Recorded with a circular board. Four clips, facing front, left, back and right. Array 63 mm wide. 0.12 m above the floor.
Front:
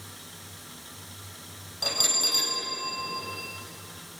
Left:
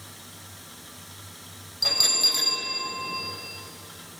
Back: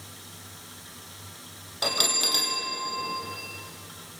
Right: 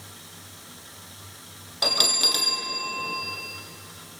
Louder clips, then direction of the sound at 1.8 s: Right 3 dB, back 3 dB; 120° right.